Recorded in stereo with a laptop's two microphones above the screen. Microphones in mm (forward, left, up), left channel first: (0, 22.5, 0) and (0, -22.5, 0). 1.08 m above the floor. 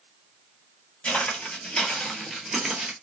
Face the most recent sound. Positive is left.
turn(degrees=-15)  # may be behind; listen again after turning